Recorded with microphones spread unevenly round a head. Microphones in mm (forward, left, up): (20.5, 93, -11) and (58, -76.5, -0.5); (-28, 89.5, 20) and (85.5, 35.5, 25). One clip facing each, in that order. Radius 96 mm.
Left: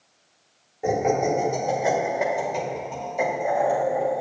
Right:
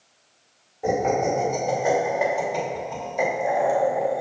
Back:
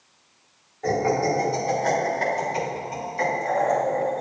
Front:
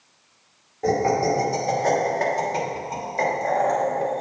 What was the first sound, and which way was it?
Laughter, 25° left.